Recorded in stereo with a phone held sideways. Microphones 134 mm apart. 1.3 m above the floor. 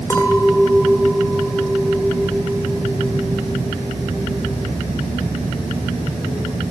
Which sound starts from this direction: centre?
A clink, at 0.1 s.